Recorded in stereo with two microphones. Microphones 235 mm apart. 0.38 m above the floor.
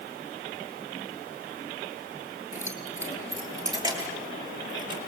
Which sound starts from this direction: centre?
Keys jangling, at 2.5 s.